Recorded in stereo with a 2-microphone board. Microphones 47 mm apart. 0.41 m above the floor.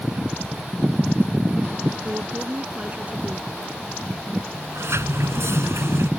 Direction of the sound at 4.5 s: 80° right.